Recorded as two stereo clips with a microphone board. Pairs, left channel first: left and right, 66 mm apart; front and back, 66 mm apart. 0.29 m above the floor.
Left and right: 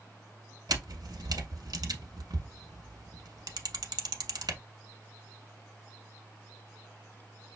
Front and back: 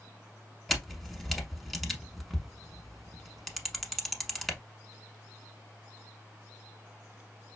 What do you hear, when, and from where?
0.7 s a camera shutter: 90° right, 0.8 m